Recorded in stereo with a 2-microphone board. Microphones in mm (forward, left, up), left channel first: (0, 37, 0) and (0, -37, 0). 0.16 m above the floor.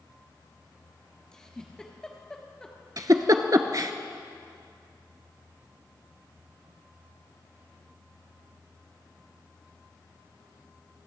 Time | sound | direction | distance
1.3 | a giggle | 10° left (ahead or behind) | 1.5 m
3.0 | a giggle | 50° right (ahead or behind) | 0.7 m